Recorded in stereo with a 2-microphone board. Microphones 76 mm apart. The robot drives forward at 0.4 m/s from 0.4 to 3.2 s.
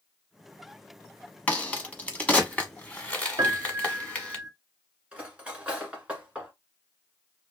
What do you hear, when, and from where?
1.5 s a crack: 20° left (ahead or behind), 0.9 m; by 4.4 s 15° left (ahead or behind), 1.0 m
3.4 s a piano: 60° right (ahead or behind), 0.6 m
5.1 s cutlery clinking: 15° right (ahead or behind), 1.3 m